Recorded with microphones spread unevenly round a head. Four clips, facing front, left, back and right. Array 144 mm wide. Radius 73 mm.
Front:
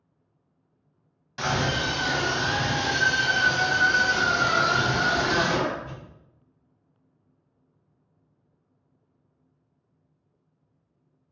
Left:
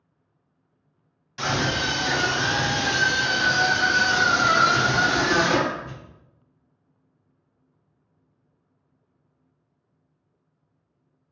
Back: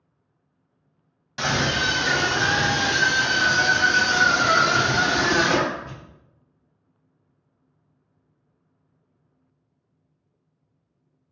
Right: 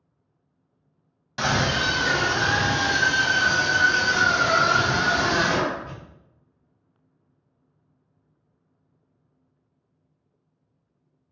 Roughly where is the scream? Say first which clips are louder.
Right 2 dB, back 2 dB; behind right.